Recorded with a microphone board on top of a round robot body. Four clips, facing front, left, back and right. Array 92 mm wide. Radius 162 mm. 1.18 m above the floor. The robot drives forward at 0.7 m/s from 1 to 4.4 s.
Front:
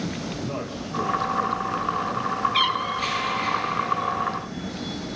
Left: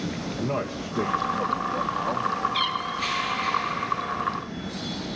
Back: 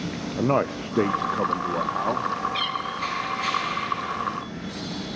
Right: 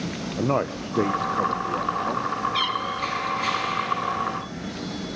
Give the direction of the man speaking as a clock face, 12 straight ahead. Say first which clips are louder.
Right 6 dB, back 8 dB; 5 o'clock.